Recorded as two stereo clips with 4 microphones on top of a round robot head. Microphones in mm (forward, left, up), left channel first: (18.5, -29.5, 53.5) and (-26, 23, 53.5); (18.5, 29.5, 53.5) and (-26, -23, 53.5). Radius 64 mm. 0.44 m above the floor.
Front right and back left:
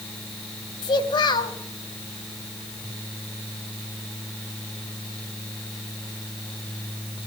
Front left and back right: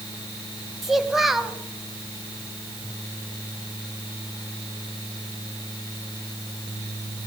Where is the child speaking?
45° right, 2.0 m.